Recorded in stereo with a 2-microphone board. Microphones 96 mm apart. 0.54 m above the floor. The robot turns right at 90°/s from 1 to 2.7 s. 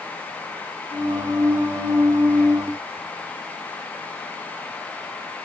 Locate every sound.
Only background noise.